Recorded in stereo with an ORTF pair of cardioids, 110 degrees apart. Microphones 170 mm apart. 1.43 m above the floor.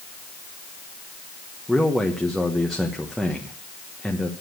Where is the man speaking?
Straight ahead, 1.2 m.